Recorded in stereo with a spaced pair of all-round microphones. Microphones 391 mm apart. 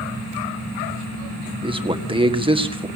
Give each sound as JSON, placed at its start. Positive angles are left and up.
{"t": 1.6, "sound": "a man speaking", "side_deg": -15, "distance_m": 1.9}